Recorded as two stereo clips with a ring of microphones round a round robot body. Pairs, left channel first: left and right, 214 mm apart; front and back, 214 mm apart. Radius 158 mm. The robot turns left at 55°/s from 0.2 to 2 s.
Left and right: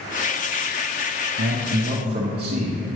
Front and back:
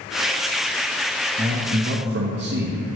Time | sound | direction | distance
1.4 | a man speaking | 120° right | 0.8 m